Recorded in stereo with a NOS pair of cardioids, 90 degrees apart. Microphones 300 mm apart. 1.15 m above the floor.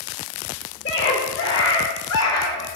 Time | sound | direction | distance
0.8 | a scream | 35° left | 4.5 m